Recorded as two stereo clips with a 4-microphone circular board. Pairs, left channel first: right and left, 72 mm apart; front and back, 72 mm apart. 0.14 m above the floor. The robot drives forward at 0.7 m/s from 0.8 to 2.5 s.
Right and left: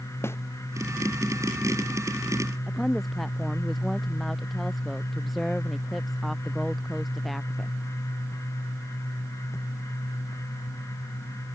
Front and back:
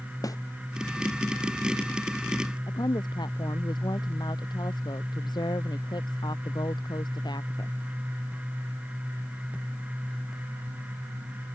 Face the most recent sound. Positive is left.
turn(degrees=0)